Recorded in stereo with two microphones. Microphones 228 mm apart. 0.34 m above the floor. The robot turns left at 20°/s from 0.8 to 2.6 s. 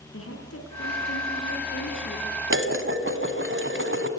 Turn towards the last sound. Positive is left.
turn(degrees=-60)  # may be behind; listen again after turning